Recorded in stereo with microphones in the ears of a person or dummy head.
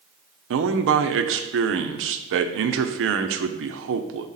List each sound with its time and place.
0.5 s a man speaking: 80° right, 0.7 m